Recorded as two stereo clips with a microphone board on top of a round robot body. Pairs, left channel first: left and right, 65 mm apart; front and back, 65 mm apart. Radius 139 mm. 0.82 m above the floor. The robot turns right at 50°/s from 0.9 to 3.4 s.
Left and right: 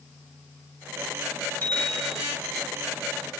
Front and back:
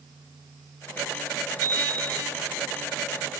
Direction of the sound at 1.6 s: 150° left.